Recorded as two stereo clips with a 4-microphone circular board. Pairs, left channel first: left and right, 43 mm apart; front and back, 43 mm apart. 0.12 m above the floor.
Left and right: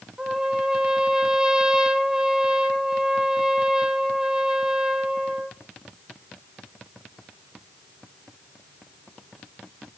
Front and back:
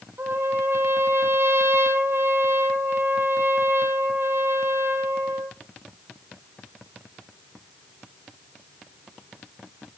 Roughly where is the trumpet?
Behind.